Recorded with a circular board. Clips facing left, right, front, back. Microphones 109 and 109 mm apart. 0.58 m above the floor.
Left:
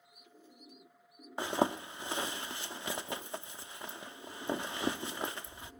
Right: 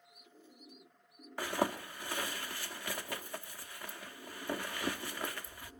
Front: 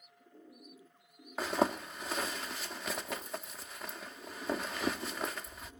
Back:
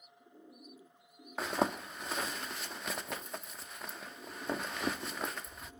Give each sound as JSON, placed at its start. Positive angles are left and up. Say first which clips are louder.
{"t": 1.4, "sound": "a zipper", "louder": "left 3 dB, front 2 dB", "azimuth_deg": 85, "distance_m": 0.6}